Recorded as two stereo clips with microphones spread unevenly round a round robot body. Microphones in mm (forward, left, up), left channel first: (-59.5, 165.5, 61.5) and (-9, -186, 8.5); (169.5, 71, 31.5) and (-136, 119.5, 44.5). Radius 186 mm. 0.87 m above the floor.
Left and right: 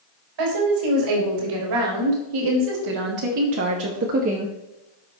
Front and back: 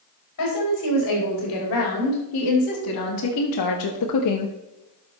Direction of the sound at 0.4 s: 65° right.